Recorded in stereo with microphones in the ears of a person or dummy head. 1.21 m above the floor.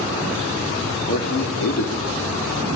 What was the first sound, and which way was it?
A man speaking, 55° left (ahead or behind).